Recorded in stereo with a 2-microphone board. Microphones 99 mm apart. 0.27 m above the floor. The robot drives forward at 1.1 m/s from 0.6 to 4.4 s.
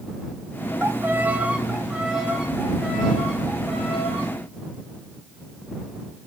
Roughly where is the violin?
Right.